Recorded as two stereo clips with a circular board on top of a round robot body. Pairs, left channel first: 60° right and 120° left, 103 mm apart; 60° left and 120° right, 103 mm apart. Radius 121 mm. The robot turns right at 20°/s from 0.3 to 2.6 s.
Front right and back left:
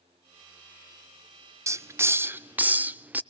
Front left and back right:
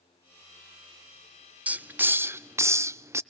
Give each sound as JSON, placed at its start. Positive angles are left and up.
{"t": 1.7, "sound": "a hiss", "azimuth_deg": 170, "distance_m": 0.5}